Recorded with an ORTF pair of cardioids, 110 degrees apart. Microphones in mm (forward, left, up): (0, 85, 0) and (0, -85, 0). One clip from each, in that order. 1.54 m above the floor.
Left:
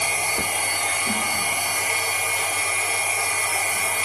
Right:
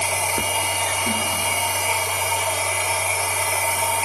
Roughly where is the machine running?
Ahead right.